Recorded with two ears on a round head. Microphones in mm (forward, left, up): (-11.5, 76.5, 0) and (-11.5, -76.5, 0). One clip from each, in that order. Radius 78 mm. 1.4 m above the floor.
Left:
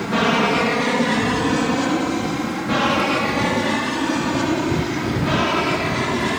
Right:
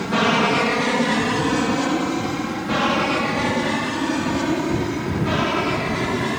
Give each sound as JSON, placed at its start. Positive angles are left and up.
{"t": 0.0, "sound": "an aircraft", "side_deg": -10}